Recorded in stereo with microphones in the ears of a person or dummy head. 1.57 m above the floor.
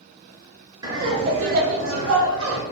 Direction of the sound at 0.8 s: 20° right (ahead or behind).